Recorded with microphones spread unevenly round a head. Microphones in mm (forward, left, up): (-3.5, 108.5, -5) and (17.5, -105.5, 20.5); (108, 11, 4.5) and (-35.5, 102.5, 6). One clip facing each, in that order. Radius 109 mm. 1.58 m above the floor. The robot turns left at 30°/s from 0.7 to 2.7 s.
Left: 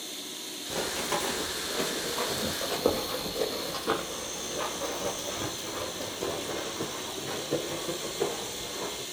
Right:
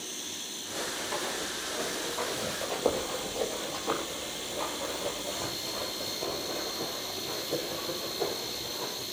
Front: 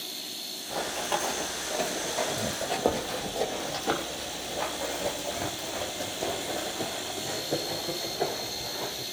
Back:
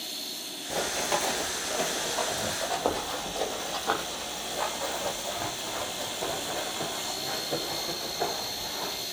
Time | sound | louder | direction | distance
0.7 | running footsteps | left 4 dB, back 1 dB | 80° left | 2.5 m